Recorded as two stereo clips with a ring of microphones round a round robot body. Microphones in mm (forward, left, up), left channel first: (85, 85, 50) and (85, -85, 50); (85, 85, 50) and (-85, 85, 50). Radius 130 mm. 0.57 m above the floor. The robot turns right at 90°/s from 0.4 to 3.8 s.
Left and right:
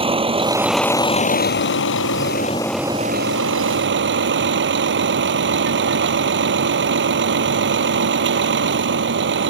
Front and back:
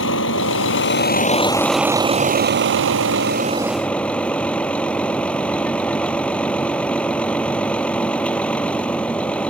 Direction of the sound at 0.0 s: 30° right.